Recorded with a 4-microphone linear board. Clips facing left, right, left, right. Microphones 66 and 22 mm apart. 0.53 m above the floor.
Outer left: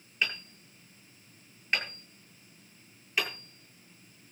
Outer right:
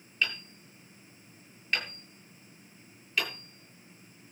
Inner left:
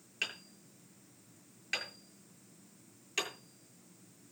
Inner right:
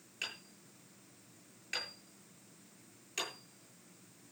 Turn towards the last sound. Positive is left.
turn(degrees=25)  # may be behind; listen again after turning